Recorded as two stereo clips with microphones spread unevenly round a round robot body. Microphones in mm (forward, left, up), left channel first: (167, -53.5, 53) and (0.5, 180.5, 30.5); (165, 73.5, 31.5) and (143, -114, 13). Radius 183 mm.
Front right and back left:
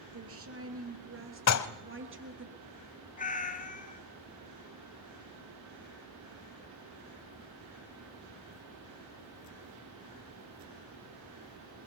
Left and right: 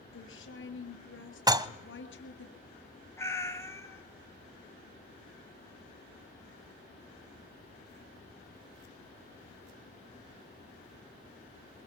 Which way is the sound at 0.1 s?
90° left.